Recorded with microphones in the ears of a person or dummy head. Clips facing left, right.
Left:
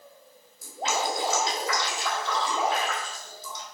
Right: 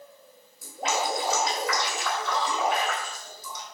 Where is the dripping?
25° left (ahead or behind), 3.5 m.